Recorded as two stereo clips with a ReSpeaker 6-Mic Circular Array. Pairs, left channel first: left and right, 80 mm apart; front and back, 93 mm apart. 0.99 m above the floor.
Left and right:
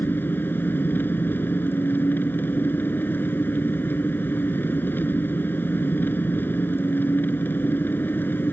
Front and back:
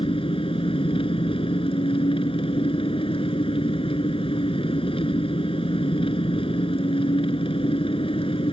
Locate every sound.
0.0 s an engine running: 25° left